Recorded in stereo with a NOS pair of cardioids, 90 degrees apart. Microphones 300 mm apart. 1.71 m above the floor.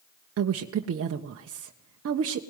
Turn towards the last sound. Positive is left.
turn(degrees=-50)